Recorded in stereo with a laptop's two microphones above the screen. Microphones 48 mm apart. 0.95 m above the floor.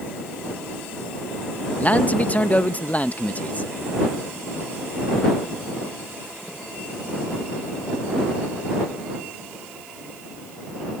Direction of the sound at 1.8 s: 30° left (ahead or behind).